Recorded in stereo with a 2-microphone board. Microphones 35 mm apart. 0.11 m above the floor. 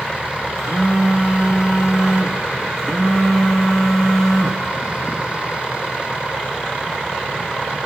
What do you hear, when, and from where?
0.6 s a phone buzzing: 5° left (ahead or behind), 1.3 m